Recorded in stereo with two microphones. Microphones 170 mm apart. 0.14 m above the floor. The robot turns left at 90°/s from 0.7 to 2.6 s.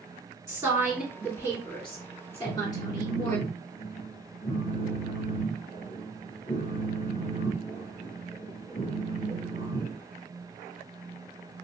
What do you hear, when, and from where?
0.5 s a woman speaking: 145° right, 1.8 m; by 3.4 s 40° left, 1.8 m
2.4 s a phone buzzing: 45° left (ahead or behind), 1.3 m; by 10.0 s 40° left (ahead or behind), 1.3 m